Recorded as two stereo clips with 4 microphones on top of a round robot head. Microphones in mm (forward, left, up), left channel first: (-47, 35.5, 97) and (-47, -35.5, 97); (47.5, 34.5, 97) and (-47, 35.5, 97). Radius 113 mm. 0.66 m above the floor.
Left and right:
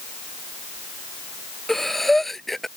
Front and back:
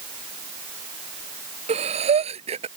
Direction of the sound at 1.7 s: 175° left.